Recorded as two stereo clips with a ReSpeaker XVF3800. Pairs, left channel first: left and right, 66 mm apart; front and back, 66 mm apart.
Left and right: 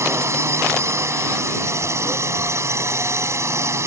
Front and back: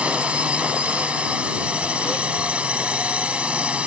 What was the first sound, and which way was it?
A drone, 115° right.